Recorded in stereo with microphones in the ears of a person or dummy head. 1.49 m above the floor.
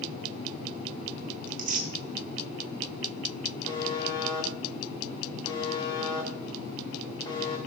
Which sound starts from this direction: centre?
A buzzer, at 3.6 s.